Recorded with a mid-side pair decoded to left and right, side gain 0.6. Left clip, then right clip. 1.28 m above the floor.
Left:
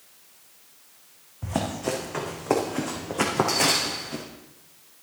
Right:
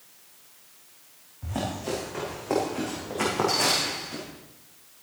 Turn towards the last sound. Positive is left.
turn(degrees=20)